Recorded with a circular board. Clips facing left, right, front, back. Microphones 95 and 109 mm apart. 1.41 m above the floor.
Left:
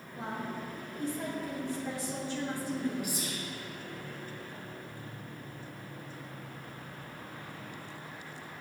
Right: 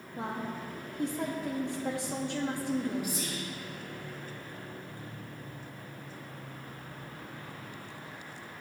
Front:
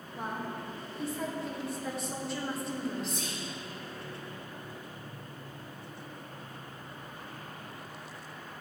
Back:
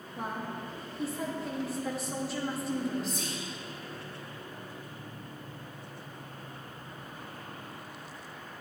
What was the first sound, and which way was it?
A woman speaking, 90° right.